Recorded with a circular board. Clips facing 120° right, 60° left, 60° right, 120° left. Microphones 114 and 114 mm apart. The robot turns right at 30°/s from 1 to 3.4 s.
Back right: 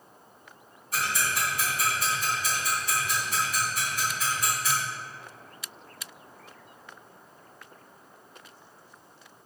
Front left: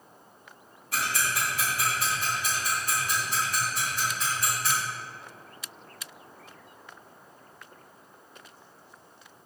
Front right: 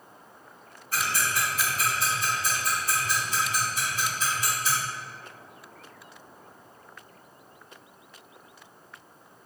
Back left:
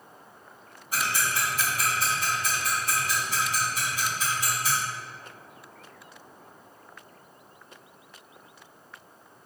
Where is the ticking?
45° left, 1.9 m; by 4.7 s 120° left, 1.9 m.